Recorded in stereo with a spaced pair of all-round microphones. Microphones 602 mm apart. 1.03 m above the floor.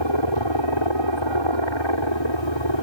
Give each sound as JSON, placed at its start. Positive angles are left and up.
{"t": 0.0, "sound": "a helicopter", "side_deg": 45}